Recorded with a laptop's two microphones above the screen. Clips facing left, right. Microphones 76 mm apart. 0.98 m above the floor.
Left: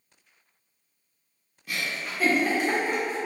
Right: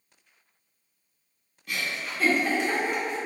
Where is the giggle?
5° left (ahead or behind), 1.0 m.